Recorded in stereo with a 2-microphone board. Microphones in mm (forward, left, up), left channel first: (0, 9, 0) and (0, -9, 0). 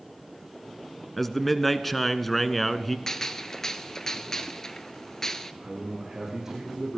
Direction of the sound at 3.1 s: 25° left (ahead or behind).